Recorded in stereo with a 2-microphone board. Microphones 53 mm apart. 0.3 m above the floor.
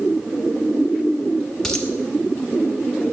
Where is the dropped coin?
10° left (ahead or behind), 1.2 m.